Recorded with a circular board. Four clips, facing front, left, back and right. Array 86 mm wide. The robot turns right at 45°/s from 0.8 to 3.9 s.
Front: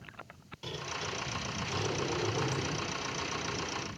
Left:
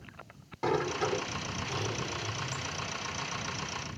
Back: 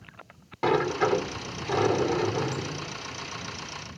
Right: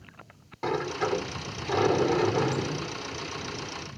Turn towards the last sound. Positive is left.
turn(degrees=-40)